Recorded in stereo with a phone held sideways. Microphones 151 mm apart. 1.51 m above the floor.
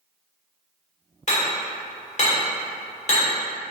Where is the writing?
No writing in this recording.